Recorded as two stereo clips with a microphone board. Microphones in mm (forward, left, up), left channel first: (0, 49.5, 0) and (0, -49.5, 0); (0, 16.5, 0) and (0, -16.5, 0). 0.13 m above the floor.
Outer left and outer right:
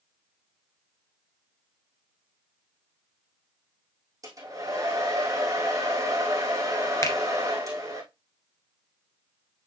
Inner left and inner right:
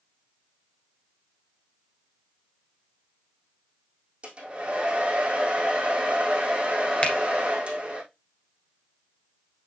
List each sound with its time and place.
4.2 s a hair dryer: 40° right (ahead or behind), 3.5 m
7.0 s a finger snap: 35° left (ahead or behind), 1.7 m